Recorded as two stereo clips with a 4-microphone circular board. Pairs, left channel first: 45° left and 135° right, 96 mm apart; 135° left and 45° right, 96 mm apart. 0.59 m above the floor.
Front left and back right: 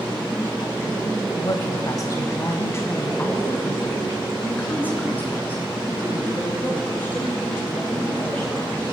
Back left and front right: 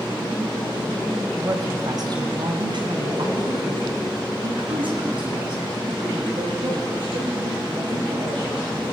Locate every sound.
1.4 s a woman speaking: 5° left, 2.5 m; by 8.8 s 30° right, 12 m